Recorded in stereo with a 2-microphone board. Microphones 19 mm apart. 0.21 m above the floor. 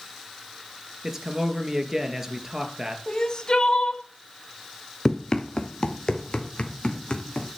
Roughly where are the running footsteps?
Left.